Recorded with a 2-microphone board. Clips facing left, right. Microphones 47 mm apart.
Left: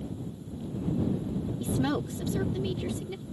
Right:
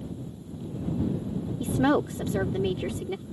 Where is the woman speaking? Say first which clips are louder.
Right 7 dB; 40° right (ahead or behind).